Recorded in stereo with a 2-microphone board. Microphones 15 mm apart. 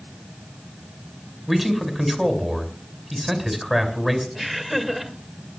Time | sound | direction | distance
1.5 | a man speaking | 10° right (ahead or behind) | 3 m
4.3 | laughter | 10° right (ahead or behind) | 2 m